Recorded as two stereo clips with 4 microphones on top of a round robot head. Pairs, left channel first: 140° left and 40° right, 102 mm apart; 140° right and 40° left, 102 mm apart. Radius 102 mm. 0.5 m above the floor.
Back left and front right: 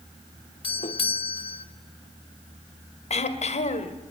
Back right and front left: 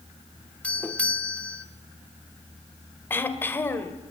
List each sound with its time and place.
0.6 s a doorbell: 140° left, 2.5 m
3.1 s throat clearing: 150° left, 2 m